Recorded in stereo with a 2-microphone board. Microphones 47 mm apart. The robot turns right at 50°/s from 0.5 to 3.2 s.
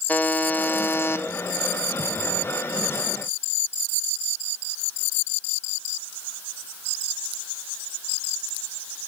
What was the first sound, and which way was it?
A buzzer, 45° left.